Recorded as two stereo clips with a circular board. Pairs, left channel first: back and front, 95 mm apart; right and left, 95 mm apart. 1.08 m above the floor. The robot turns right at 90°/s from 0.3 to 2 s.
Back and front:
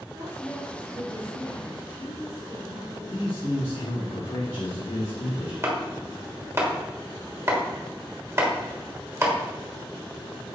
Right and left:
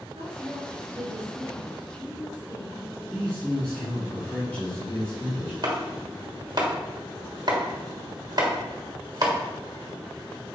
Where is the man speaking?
165° right, 1.7 m.